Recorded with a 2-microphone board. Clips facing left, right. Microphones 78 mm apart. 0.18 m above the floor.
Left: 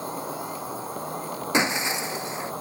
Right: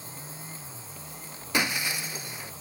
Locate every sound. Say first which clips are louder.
0.0 s an insect: left 13 dB; 60° left (ahead or behind)
1.5 s breaking glass: left 4 dB; 25° left (ahead or behind)